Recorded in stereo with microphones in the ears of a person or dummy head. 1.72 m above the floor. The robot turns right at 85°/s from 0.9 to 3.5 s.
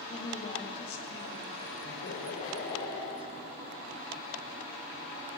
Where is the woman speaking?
35° left, 3 m; by 1.5 s 90° left, 3 m.